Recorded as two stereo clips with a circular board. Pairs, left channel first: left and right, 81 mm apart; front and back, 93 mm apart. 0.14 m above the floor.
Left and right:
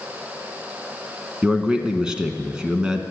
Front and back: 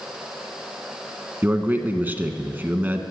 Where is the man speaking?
150° right, 1.1 m.